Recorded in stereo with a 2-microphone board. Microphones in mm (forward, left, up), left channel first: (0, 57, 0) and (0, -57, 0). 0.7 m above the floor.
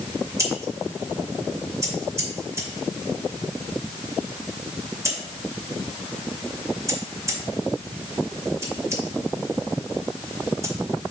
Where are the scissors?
25° right (ahead or behind), 2.5 m.